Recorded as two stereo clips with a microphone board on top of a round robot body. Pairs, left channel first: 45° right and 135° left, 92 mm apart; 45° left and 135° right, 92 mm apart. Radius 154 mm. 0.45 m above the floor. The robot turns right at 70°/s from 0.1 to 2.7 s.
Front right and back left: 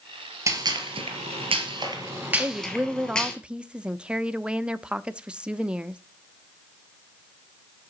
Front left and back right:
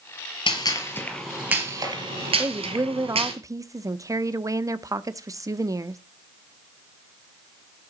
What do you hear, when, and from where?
0.5 s a gunshot: 80° left, 3 m; by 3.3 s 125° right, 3 m
2.4 s a woman speaking: 175° right, 0.8 m; by 6.0 s 150° right, 0.8 m